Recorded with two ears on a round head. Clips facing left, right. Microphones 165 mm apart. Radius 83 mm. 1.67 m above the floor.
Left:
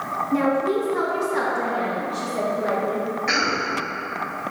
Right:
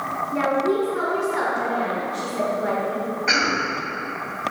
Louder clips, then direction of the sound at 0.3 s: Left 1 dB; 80° left.